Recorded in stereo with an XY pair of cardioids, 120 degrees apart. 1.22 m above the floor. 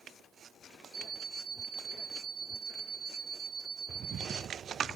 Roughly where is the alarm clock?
Ahead right.